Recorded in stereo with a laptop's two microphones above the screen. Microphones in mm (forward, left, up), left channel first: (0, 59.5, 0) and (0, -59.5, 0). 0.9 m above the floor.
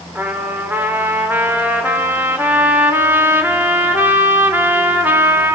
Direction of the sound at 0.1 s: 15° right (ahead or behind).